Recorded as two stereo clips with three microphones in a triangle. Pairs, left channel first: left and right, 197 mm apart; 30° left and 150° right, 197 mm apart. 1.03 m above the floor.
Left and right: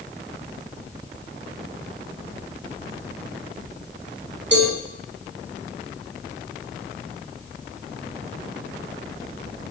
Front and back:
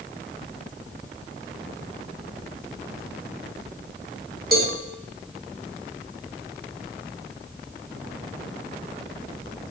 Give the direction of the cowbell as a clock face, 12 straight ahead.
4 o'clock.